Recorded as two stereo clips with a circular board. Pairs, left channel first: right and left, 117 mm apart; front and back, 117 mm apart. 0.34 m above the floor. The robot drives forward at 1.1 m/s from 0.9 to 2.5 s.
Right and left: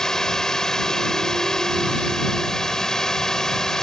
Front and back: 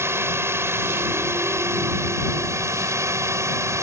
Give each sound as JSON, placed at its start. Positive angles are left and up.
{"t": 0.0, "sound": "a drone", "azimuth_deg": -170}